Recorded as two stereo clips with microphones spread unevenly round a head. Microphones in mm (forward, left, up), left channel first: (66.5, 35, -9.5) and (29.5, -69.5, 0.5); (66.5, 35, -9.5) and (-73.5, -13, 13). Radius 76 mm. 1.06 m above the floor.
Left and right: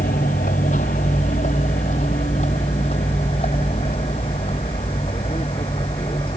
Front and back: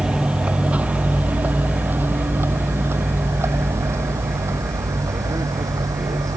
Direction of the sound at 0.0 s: 115° left.